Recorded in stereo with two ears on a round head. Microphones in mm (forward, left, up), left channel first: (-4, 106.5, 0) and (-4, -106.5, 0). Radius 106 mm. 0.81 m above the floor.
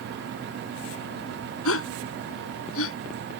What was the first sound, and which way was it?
A gasp, 65° left (ahead or behind).